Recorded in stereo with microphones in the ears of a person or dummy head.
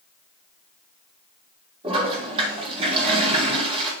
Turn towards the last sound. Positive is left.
turn(degrees=-30)  # may be behind; listen again after turning